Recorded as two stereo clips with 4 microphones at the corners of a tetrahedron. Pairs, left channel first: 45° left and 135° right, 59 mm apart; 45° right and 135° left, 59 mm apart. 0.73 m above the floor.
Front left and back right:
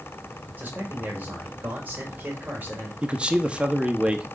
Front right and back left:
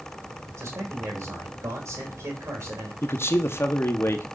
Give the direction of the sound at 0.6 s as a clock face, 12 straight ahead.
6 o'clock.